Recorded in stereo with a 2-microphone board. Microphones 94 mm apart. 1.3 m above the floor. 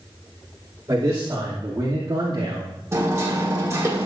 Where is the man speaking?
35° right (ahead or behind), 2.5 m; by 2.7 s 50° right (ahead or behind), 2.0 m.